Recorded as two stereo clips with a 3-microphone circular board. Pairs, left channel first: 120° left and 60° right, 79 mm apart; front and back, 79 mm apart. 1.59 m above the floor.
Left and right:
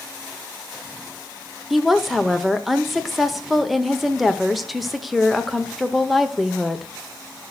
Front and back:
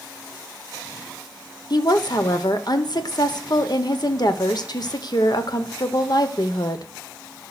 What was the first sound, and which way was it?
A woman speaking, 30° left.